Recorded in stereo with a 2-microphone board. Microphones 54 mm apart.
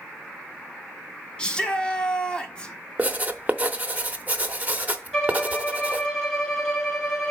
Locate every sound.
1.4 s a shout: 15° left (ahead or behind), 1.2 m
3.0 s writing: 30° right (ahead or behind), 0.7 m
5.1 s a violin: 20° left (ahead or behind), 3.5 m